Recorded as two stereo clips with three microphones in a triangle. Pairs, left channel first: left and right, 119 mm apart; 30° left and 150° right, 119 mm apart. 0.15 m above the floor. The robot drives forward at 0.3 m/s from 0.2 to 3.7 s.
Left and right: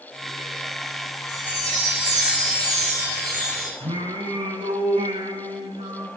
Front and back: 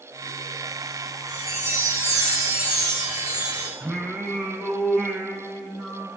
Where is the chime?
85° right, 6.5 m; by 3.7 s 90° right, 6.5 m.